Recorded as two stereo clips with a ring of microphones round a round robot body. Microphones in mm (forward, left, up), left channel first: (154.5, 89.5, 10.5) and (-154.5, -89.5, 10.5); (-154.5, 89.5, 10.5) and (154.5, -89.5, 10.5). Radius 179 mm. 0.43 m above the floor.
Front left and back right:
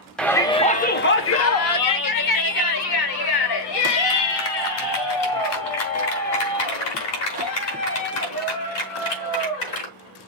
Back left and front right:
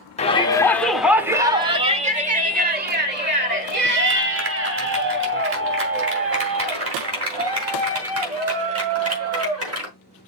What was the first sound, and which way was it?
A shout, 115° left.